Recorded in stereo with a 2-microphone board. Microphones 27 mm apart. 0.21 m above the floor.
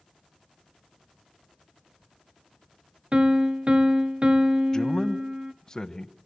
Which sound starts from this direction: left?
A man speaking, at 4.7 s.